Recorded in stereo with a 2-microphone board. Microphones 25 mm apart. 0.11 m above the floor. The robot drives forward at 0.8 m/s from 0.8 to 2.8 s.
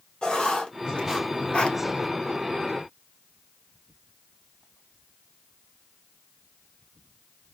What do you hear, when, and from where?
0.2 s writing: 35° left (ahead or behind), 1.5 m; by 1.8 s 50° left (ahead or behind), 1.1 m